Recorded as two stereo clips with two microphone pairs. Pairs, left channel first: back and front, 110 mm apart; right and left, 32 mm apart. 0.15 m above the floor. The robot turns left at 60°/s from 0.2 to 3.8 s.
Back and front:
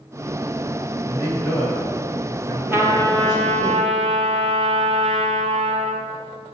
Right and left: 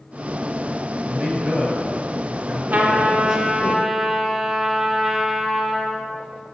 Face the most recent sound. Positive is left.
turn(degrees=5)